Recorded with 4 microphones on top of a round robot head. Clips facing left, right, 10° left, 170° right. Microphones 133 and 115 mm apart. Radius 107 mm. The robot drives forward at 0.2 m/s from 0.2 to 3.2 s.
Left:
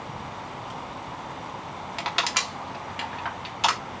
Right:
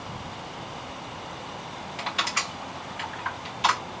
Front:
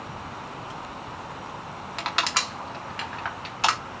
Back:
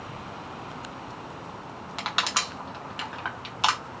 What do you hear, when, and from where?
2.0 s crushing: 105° left, 1.3 m; by 3.8 s 115° left, 1.3 m